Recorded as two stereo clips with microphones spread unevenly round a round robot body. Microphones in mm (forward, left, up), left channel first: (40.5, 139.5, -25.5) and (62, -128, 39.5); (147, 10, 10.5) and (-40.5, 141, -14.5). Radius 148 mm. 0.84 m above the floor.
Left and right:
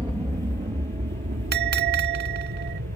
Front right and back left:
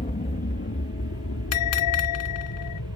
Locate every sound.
0.0 s an aircraft: 5° right; by 3.0 s 45° right
1.5 s a bell: 30° right